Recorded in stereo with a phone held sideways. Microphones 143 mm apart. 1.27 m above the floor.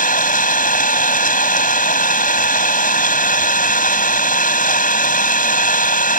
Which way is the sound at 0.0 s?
75° left (ahead or behind).